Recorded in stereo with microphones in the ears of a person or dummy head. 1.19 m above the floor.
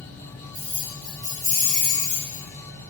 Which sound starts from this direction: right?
Keys jangling, at 0.5 s.